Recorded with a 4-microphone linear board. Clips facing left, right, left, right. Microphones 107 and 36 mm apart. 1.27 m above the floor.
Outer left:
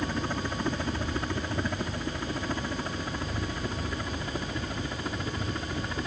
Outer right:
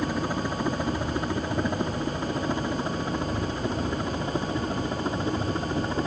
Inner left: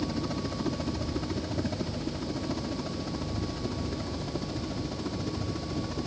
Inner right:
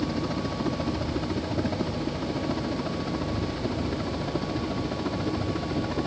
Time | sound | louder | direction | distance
0.0 | a helicopter | outer right 4 dB, inner right 3 dB | 10° right (ahead or behind) | ?